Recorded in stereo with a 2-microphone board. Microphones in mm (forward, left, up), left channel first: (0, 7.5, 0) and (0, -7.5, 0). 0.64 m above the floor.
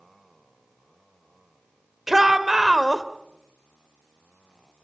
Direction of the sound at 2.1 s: 15° right (ahead or behind).